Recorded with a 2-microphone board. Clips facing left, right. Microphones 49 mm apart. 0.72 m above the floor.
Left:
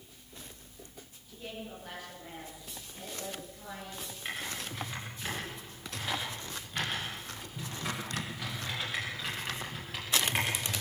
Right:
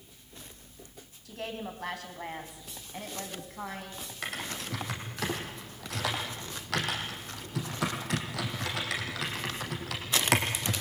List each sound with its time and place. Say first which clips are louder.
1.2 s a woman speaking: right 6 dB; 80° right, 6 m; by 4.1 s 70° right (ahead or behind), 7 m
4.2 s typing on a keyboard: right 2 dB; 85° right, 6 m